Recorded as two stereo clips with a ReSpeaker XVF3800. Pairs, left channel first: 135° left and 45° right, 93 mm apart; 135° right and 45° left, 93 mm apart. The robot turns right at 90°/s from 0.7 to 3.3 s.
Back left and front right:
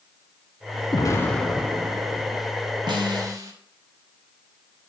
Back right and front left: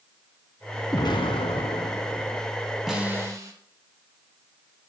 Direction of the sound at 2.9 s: 40° right.